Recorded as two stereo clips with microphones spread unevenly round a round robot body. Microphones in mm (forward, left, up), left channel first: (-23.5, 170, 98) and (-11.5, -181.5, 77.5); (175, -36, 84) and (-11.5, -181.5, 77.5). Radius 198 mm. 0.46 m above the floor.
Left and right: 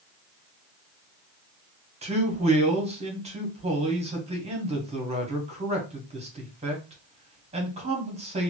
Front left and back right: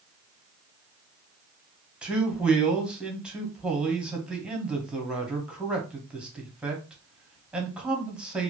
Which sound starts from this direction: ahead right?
A man speaking, at 2.0 s.